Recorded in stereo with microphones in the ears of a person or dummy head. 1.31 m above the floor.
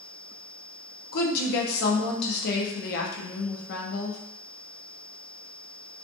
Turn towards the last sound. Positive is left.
turn(degrees=55)  # may be behind; listen again after turning